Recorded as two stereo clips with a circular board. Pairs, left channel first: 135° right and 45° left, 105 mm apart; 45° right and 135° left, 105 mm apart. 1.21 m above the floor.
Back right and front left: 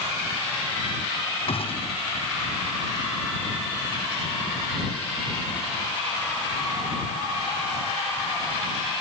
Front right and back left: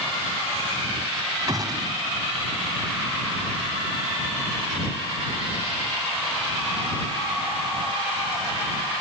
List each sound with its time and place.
1.5 s a gunshot: 170° right